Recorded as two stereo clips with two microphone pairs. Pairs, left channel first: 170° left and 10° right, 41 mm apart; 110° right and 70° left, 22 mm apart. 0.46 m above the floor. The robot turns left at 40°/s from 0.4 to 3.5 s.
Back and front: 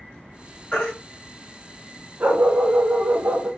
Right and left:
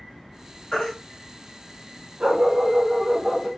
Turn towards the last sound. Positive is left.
turn(degrees=-15)